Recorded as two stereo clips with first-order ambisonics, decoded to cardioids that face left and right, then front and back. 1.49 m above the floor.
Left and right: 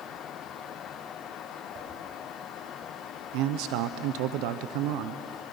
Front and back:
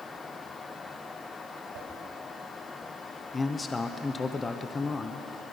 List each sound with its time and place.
1.7 s a whoosh: 155° right, 6 m
3.3 s a man speaking: 75° right, 0.6 m